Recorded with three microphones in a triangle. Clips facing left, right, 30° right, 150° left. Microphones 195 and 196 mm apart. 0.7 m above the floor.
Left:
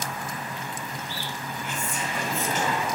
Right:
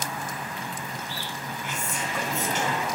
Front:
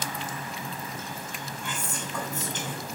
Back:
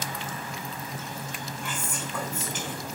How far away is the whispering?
About 2.5 m.